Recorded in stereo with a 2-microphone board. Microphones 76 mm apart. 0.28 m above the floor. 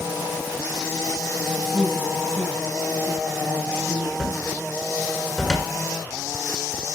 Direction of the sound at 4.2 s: Centre (ahead or behind).